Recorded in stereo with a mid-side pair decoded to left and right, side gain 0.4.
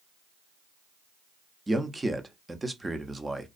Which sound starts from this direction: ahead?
A man speaking, at 1.7 s.